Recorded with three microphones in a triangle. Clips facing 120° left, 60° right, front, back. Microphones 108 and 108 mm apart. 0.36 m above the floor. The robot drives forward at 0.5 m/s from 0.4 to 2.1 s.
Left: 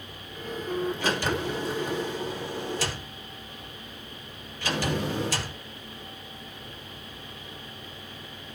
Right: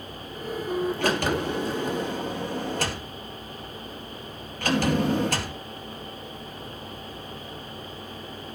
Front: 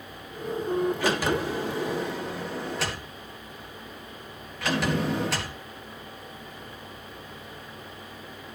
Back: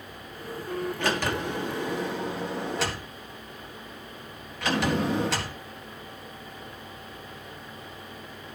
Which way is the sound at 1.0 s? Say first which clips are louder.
Right 3 dB, front 2 dB; 80° right.